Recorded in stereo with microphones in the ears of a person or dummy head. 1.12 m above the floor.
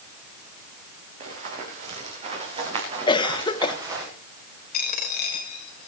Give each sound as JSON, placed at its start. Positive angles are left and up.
{"t": 1.2, "sound": "running footsteps", "side_deg": -45, "distance_m": 6.0}
{"t": 3.1, "sound": "a cough", "side_deg": 25, "distance_m": 0.9}
{"t": 4.7, "sound": "a dropped coin", "side_deg": 65, "distance_m": 2.0}